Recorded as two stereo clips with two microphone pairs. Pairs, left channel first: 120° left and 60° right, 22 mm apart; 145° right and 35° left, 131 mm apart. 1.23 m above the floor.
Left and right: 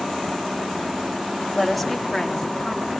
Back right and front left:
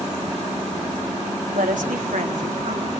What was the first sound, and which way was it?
A woman speaking, 30° left.